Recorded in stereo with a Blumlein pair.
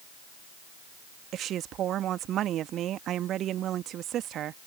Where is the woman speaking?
30° right.